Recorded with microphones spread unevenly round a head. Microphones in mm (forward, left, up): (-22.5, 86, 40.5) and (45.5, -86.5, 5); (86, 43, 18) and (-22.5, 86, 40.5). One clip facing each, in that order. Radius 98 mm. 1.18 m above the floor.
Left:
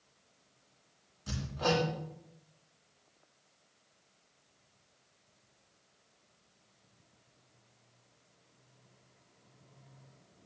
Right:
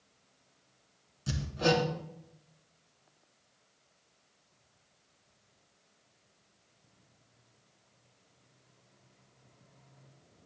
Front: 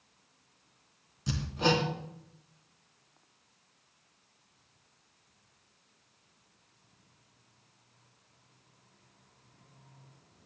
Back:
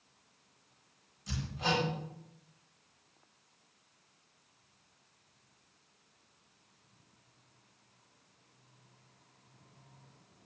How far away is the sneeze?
No sneeze in this recording.